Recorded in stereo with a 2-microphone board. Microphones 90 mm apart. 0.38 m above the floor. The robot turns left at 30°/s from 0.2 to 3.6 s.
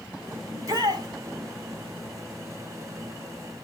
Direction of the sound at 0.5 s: 35° right (ahead or behind).